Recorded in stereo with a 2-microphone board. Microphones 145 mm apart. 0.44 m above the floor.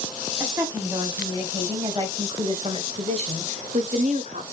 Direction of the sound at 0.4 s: 15° right (ahead or behind).